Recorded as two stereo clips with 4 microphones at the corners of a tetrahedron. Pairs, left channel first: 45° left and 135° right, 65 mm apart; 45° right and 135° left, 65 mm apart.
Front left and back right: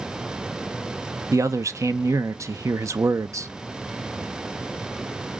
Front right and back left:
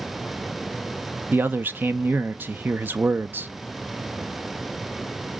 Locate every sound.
1.3 s a man speaking: 165° right, 0.6 m